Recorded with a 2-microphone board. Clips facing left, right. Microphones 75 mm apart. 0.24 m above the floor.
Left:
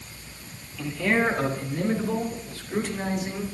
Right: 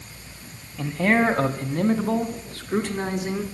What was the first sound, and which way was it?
A man speaking, 45° right (ahead or behind).